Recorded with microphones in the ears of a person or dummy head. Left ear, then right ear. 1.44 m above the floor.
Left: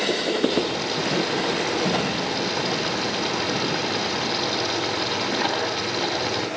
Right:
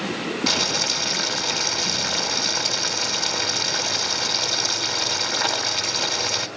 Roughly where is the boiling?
Right.